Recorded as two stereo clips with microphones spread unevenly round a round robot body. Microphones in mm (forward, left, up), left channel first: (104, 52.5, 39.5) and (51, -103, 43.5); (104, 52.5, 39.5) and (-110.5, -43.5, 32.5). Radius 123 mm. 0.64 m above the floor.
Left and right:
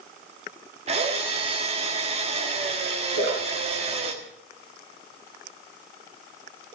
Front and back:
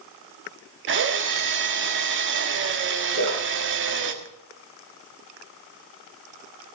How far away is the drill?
About 1.5 m.